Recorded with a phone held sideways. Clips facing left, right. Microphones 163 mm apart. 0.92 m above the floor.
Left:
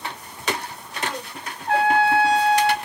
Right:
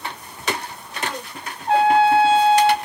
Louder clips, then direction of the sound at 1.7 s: Right 4 dB; 25° right (ahead or behind).